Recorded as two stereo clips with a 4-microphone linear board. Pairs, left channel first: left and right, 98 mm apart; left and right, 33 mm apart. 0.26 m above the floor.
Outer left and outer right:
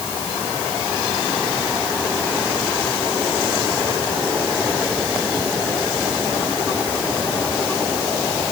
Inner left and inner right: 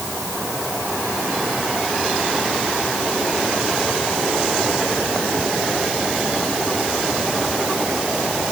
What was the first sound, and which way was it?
Only background noise.